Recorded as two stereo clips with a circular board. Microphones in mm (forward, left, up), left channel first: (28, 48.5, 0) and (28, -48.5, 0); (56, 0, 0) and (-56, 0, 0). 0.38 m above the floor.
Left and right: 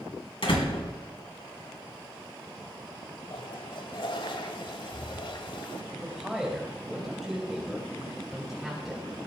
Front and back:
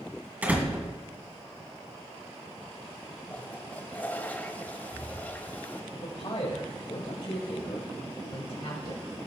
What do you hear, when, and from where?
0.4 s a door slam: 105° left, 2.5 m
3.3 s a toilet flushing: 70° left, 1.0 m
5.9 s a man speaking: straight ahead, 2 m